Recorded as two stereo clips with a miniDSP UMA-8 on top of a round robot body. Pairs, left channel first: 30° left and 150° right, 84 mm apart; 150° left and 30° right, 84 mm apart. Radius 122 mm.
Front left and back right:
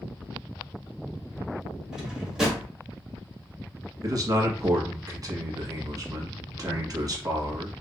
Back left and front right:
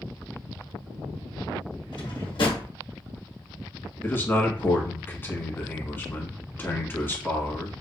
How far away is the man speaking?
About 1.3 m.